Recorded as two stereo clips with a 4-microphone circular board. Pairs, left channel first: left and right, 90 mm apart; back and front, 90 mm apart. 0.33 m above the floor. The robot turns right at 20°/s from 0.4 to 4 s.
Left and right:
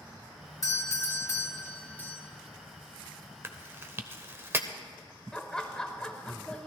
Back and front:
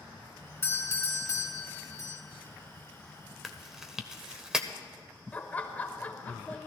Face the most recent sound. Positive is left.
turn(degrees=155)